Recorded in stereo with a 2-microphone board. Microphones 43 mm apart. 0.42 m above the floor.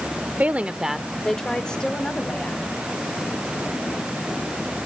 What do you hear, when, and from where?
0.4 s a woman speaking: 35° right (ahead or behind), 0.9 m; by 2.7 s 25° left (ahead or behind), 3 m